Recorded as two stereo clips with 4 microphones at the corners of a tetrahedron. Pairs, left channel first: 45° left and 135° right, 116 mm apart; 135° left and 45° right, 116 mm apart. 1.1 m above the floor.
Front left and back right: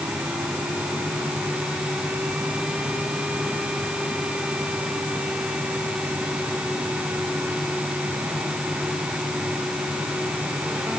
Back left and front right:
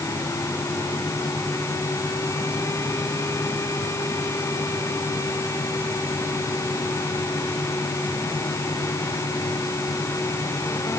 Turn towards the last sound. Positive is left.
No sound to turn to.